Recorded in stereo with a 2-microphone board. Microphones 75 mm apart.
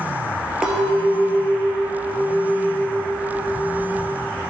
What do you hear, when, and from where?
0.6 s a clink: 5° right (ahead or behind), 1.9 m